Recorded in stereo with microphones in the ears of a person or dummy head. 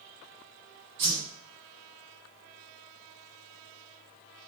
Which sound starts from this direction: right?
A whoosh, at 1.0 s.